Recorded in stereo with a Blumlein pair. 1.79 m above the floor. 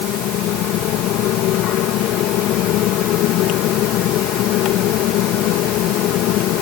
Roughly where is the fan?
Ahead left.